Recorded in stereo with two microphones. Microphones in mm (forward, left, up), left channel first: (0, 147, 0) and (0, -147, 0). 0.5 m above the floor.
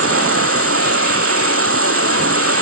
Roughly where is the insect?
Right.